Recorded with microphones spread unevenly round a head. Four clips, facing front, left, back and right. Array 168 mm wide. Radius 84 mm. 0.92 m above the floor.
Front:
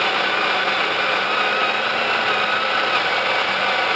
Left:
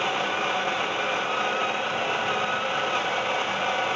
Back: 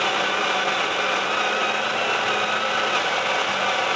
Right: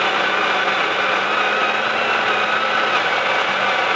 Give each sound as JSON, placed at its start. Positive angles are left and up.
{"t": 0.0, "sound": "a machine running", "azimuth_deg": -90, "distance_m": 0.8}